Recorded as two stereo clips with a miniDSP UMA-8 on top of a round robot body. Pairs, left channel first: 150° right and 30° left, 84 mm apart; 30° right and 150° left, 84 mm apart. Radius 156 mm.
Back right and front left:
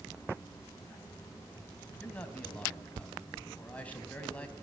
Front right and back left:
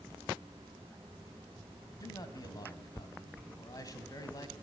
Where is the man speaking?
75° right, 3 m.